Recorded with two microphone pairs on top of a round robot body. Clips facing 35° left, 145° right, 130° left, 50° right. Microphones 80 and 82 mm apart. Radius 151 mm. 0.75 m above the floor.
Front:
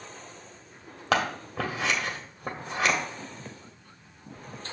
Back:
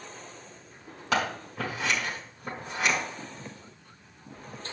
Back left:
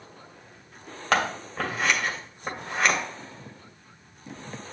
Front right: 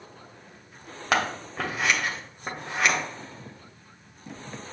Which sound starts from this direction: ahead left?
Scissors, at 1.1 s.